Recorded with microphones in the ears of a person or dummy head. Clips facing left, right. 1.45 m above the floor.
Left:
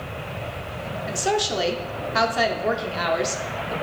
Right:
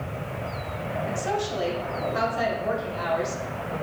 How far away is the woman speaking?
About 0.6 m.